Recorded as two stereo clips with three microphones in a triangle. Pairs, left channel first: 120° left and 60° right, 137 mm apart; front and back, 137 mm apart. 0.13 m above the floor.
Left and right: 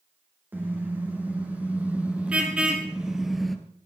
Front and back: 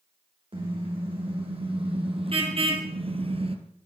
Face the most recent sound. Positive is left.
turn(degrees=-150)